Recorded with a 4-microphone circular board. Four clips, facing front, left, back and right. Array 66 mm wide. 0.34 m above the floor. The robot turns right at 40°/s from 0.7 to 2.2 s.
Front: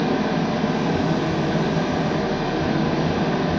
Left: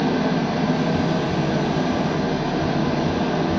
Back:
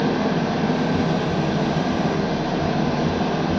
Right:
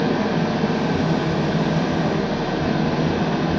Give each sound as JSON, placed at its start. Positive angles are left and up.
{"t": 0.0, "sound": "an engine running", "azimuth_deg": -120, "distance_m": 1.6}